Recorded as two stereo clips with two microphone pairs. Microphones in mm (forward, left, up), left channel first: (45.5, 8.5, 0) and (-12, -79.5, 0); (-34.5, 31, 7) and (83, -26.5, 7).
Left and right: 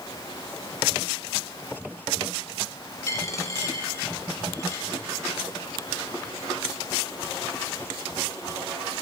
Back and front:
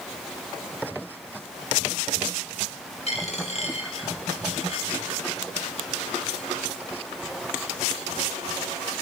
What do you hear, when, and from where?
3.1 s a dropped coin: 120° left, 6.5 m